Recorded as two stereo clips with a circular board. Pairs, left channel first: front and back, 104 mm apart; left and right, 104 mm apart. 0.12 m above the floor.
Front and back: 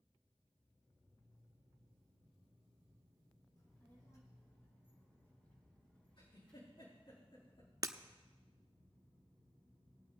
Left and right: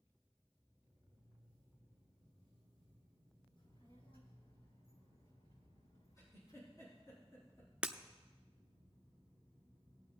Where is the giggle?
30° left, 4.5 m.